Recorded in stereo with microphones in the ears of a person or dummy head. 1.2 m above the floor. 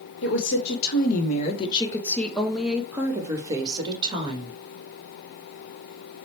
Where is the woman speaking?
75° left (ahead or behind), 1.1 m; by 4.6 s 30° right (ahead or behind), 1.8 m.